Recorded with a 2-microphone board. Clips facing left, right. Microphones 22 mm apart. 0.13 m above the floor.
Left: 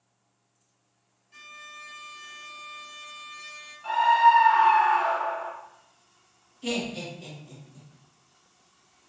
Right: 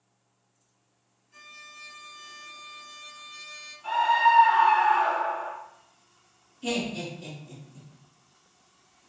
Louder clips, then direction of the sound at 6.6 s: Right 1 dB; 10° left (ahead or behind).